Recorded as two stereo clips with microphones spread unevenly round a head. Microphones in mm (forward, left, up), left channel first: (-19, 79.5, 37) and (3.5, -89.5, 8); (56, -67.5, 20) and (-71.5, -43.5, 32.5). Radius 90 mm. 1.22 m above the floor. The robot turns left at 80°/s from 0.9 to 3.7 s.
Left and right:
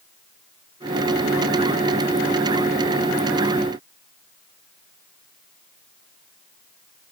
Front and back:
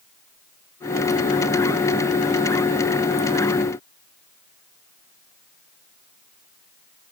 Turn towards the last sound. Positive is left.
No sound to turn to.